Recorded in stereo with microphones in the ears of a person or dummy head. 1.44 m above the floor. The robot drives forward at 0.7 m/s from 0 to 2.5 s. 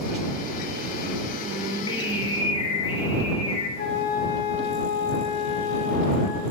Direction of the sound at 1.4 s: 30° left (ahead or behind).